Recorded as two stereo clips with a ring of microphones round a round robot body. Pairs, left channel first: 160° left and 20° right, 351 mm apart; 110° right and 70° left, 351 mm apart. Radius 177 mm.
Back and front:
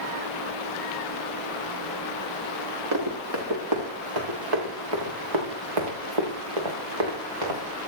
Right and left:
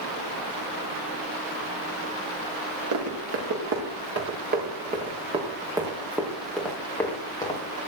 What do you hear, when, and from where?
2.9 s running footsteps: 20° left, 4 m; by 7.6 s 35° right, 4 m